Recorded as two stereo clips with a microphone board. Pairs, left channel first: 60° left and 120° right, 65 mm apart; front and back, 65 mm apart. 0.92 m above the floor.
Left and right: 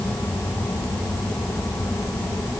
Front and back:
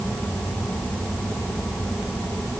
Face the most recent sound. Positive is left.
No sound to turn to.